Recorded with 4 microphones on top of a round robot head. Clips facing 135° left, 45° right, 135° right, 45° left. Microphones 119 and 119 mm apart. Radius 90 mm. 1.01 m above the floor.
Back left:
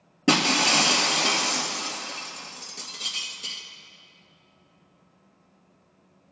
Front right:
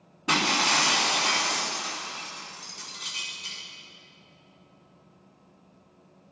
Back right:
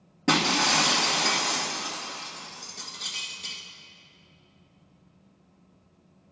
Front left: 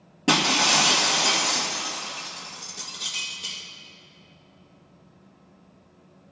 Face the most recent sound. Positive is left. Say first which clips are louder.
# back left 4 dB, front left 2 dB
turn(degrees=120)